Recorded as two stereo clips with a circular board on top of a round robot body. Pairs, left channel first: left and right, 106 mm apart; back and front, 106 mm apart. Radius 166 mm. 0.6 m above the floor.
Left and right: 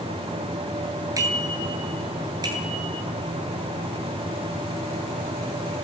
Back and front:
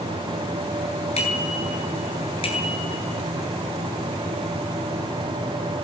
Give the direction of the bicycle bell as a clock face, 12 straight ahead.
5 o'clock.